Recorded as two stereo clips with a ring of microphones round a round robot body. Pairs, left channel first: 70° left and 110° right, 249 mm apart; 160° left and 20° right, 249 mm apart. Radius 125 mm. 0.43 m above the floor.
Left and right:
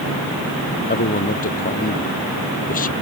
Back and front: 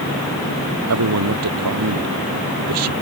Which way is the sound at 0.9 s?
10° left.